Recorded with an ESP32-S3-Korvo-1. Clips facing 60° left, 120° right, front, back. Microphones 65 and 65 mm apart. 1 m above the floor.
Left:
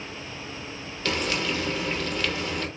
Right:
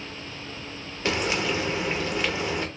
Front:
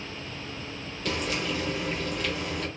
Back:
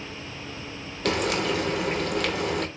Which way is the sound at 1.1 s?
175° left.